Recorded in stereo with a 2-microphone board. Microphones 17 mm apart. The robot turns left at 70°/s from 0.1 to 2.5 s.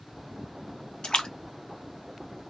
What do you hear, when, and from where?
1.0 s a splash: 65° left (ahead or behind), 0.7 m; by 1.3 s 55° left (ahead or behind), 0.7 m